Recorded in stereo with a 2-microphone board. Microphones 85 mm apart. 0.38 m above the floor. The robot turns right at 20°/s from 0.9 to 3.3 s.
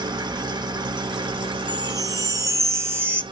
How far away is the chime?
About 0.7 m.